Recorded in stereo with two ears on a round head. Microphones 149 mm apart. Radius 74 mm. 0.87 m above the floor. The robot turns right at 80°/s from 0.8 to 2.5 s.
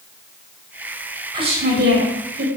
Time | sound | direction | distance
1.3 | a woman speaking | 155° right | 3.5 m